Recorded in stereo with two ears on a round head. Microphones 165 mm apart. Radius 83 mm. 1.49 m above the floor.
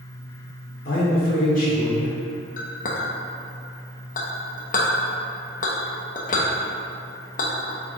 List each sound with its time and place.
0.8 s a man speaking: 55° left (ahead or behind), 2 m
2.6 s a clink: 45° left (ahead or behind), 1.0 m